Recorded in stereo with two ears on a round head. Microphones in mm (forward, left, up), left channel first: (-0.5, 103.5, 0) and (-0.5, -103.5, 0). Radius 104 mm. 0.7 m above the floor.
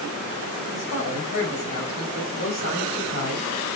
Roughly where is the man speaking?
Left.